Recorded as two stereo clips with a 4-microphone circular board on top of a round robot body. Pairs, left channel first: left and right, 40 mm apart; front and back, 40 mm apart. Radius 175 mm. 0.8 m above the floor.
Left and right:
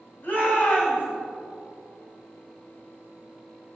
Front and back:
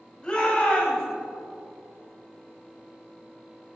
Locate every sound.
0.2 s a shout: 70° left, 4.5 m